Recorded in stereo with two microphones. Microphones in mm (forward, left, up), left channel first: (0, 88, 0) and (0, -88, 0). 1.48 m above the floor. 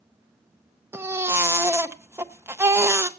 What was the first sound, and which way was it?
A baby crying, 15° right (ahead or behind).